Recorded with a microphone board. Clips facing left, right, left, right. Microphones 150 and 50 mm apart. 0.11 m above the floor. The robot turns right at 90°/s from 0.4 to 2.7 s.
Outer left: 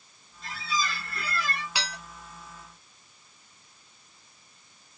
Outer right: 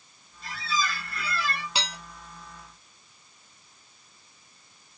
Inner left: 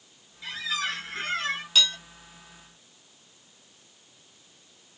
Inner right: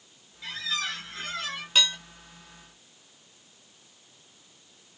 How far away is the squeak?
About 1.3 m.